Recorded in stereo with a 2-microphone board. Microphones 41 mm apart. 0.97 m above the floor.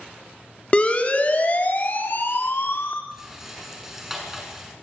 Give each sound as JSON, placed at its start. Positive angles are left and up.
{"t": 0.7, "sound": "a siren", "side_deg": 30, "distance_m": 3.0}
{"t": 3.1, "sound": "a rattle", "side_deg": -10, "distance_m": 6.5}